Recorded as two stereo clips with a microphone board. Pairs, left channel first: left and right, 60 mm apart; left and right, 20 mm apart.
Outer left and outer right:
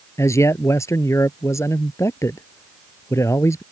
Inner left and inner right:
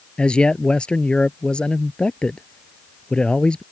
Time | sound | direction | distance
0.2 | a man speaking | 60° left (ahead or behind) | ?